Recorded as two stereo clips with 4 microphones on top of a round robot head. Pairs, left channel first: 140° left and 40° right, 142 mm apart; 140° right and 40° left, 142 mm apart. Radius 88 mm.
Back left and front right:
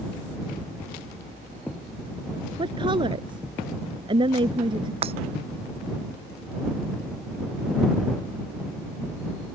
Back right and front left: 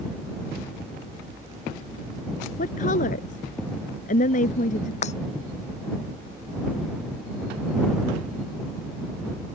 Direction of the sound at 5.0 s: 95° right.